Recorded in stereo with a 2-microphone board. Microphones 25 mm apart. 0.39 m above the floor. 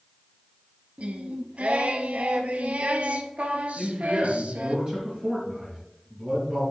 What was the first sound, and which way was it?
Singing, 70° right (ahead or behind).